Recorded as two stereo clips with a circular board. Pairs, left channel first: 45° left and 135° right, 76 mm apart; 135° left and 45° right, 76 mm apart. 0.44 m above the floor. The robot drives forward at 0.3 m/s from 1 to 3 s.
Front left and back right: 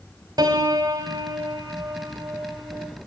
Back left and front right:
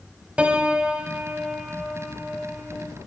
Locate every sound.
0.4 s a piano: 120° right, 2.5 m; by 2.9 s 130° right, 2.5 m